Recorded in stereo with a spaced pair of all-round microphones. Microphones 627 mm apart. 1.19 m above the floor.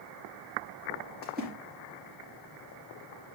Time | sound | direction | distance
1.2 | a splash | 15° right (ahead or behind) | 4 m